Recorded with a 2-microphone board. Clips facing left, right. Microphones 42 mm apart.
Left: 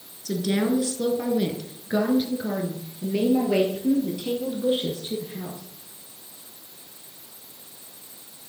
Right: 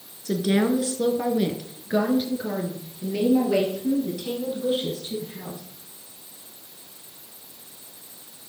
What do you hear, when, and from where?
0.2 s a woman speaking: 20° right (ahead or behind), 1.4 m; by 5.6 s 20° left (ahead or behind), 3 m